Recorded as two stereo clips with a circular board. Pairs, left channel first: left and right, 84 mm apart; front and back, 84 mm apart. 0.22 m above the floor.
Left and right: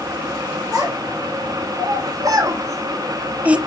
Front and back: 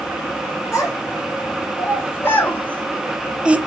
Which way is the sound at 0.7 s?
50° right.